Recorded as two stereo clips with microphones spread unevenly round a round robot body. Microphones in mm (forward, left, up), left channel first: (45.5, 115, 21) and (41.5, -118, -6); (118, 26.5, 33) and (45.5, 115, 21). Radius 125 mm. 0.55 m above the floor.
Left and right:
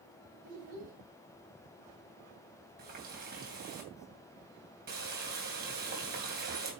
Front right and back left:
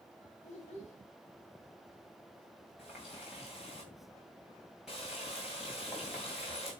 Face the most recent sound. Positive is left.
turn(degrees=-145)